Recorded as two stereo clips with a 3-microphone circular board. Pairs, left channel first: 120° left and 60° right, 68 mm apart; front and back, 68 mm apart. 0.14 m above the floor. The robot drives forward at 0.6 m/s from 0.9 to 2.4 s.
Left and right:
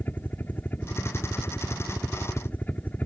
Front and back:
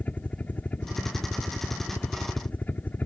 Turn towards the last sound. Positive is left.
turn(degrees=60)